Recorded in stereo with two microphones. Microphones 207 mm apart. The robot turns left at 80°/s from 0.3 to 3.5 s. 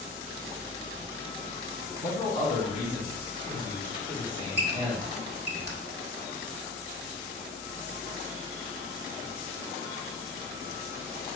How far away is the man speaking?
About 1.9 m.